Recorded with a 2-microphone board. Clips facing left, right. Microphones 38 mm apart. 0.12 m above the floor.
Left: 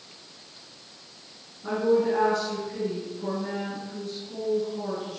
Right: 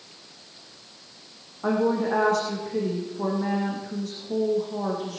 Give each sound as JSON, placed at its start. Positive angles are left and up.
{"t": 1.6, "sound": "a woman speaking", "side_deg": -75, "distance_m": 6.0}